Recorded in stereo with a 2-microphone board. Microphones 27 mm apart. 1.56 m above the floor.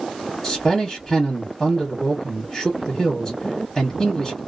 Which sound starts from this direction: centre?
A man speaking, at 0.4 s.